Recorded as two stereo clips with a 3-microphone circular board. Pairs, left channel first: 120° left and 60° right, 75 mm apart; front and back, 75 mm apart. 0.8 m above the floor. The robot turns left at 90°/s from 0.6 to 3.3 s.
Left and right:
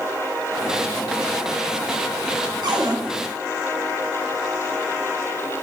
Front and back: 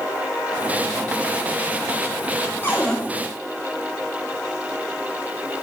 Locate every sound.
2.6 s a cupboard door: 60° right, 2.5 m; by 3.0 s 85° right, 2.5 m